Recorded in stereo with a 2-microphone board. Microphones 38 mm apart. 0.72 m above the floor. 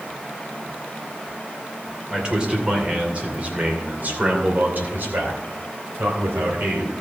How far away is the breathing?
I don't hear breathing.